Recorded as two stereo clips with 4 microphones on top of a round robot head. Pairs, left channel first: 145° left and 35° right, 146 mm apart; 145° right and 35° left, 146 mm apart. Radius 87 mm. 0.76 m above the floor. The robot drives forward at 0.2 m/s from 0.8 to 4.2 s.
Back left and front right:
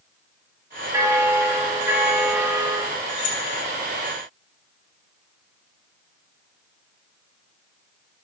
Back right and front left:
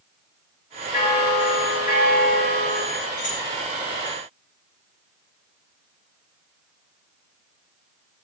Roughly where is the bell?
Right.